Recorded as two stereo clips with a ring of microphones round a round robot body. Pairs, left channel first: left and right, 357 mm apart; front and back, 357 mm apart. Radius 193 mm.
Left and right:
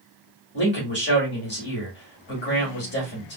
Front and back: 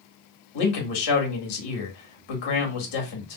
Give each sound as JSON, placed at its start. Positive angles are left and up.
{"t": 0.5, "sound": "a man speaking", "azimuth_deg": 25, "distance_m": 2.0}